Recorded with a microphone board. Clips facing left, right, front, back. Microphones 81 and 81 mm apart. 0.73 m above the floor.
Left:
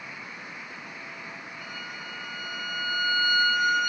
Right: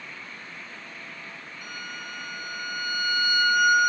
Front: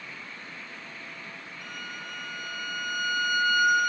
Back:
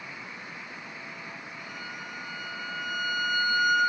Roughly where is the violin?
Ahead.